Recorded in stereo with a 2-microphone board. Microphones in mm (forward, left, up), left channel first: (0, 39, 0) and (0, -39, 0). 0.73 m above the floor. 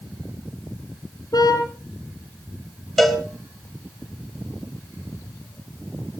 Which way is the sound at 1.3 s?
60° left (ahead or behind).